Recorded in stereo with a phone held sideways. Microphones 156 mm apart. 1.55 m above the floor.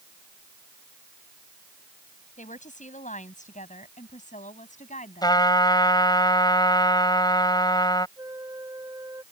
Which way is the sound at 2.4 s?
50° left (ahead or behind).